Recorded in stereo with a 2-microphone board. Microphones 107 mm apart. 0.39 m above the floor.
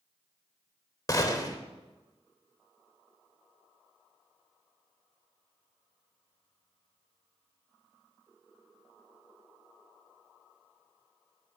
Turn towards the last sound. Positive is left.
turn(degrees=30)  # may be behind; listen again after turning